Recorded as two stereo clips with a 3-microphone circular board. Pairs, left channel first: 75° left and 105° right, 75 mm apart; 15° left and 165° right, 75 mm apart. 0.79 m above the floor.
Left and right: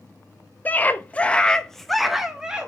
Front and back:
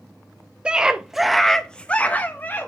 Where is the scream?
125° left, 0.8 m; by 2.7 s 30° right, 0.8 m.